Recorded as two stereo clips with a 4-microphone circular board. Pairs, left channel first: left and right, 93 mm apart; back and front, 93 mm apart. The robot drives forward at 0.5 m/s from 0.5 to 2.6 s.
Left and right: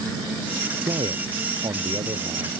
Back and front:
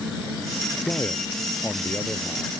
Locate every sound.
0.8 s a man speaking: 110° right; by 2.5 s 115° right